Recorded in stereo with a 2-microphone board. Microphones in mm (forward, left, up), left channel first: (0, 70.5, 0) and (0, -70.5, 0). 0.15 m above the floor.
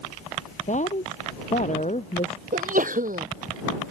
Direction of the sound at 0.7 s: 60° left (ahead or behind).